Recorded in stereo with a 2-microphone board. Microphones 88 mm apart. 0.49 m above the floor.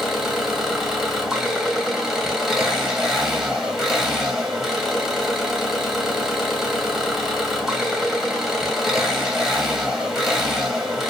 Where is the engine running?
Centre (ahead or behind), 0.9 m.